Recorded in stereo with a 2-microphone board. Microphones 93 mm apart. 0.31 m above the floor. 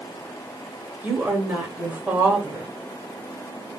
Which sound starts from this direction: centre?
A woman speaking, at 1.0 s.